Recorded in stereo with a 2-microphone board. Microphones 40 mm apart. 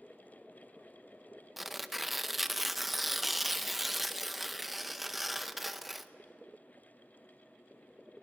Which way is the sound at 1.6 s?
5° right (ahead or behind).